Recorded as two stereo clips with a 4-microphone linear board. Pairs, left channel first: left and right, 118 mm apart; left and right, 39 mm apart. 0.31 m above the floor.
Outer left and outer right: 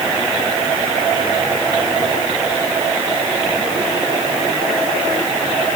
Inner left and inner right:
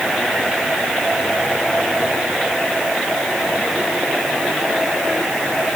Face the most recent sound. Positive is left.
No sound to turn to.